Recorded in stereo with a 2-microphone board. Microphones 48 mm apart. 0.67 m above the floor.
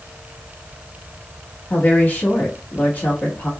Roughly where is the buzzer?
No buzzer in this recording.